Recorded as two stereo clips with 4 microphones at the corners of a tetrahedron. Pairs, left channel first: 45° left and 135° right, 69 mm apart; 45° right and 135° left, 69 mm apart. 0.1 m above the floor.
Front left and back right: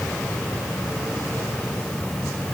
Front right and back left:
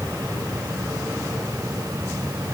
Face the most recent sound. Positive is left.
No sound to turn to.